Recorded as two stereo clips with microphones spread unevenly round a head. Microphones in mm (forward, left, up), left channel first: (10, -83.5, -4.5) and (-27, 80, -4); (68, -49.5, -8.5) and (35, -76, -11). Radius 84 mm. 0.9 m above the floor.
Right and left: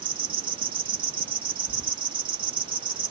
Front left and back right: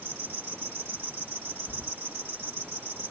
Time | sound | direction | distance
0.0 | an insect | 160° left | ?
1.7 | keys jangling | 130° right | ?